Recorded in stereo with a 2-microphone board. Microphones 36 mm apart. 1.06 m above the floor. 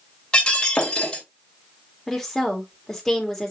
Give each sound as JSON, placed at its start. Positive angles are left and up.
{"t": 0.3, "sound": "breaking glass", "side_deg": 25, "distance_m": 2.5}
{"t": 2.1, "sound": "a woman speaking", "side_deg": 5, "distance_m": 3.0}